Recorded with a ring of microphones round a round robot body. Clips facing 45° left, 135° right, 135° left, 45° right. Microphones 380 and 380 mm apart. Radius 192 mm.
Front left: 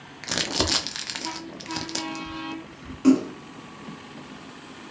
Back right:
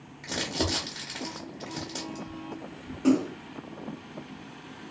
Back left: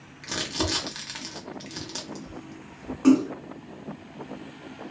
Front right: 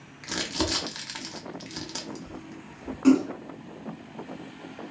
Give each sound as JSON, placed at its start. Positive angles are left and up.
{"t": 0.2, "sound": "crumpling", "azimuth_deg": 45, "distance_m": 0.5}
{"t": 3.0, "sound": "a splash", "azimuth_deg": 50, "distance_m": 1.4}